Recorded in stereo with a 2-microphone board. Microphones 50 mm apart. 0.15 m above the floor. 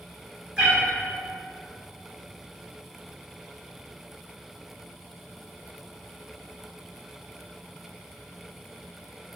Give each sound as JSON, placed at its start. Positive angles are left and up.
{"t": 0.6, "sound": "a cat meowing", "side_deg": -20, "distance_m": 1.6}